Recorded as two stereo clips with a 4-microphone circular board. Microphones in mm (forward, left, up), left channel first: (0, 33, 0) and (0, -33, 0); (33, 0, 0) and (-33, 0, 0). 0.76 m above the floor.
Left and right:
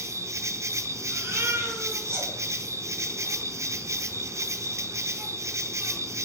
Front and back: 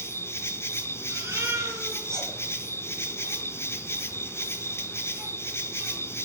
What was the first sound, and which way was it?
An insect, 50° right.